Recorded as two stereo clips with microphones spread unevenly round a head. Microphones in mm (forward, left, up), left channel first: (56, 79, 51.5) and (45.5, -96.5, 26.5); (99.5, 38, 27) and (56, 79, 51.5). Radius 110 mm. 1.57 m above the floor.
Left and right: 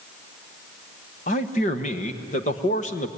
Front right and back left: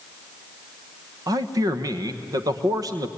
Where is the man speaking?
145° left, 1.2 m.